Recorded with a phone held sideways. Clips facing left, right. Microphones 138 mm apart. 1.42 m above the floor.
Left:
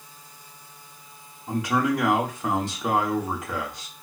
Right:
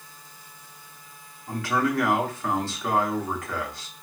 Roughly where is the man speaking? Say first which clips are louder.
Left 2 dB; centre.